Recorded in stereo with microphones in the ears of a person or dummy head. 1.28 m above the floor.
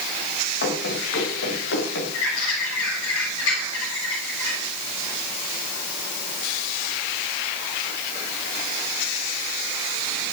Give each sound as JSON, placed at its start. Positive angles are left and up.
{"t": 0.6, "sound": "running footsteps", "side_deg": 70, "distance_m": 8.0}
{"t": 2.1, "sound": "a bird", "side_deg": 75, "distance_m": 8.0}